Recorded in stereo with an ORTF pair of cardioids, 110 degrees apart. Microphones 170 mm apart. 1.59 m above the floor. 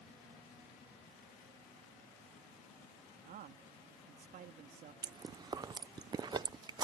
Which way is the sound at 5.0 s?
25° right.